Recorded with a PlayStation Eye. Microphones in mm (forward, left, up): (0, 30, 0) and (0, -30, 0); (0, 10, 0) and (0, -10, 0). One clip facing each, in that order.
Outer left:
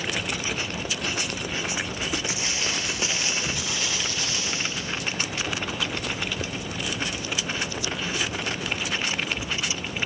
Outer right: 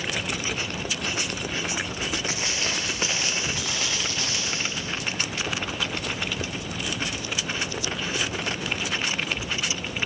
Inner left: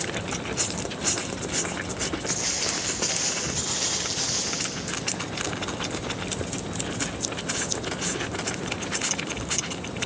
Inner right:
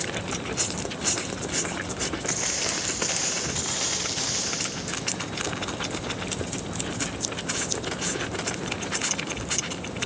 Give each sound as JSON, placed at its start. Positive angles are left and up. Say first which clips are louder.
{"t": 2.2, "sound": "footsteps", "louder": "outer right 1 dB, even", "side_deg": -45, "distance_m": 5.0}